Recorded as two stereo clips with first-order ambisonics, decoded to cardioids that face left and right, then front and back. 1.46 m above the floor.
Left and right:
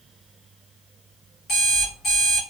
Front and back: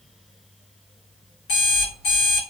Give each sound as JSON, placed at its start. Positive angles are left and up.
{"t": 1.5, "sound": "an alarm clock", "azimuth_deg": 25, "distance_m": 1.6}